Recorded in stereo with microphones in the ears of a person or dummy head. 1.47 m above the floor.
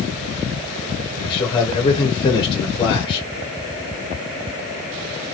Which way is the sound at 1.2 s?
25° left (ahead or behind).